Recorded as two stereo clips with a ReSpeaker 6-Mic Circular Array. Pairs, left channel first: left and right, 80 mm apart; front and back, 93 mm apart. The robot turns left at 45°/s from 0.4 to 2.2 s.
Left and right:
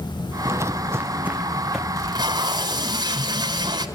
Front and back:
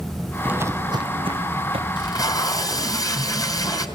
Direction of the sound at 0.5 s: 120° right.